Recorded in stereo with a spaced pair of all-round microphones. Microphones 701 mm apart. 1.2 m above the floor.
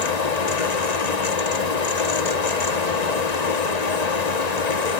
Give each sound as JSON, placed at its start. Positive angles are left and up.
{"t": 0.0, "sound": "a fan", "side_deg": 65, "distance_m": 1.3}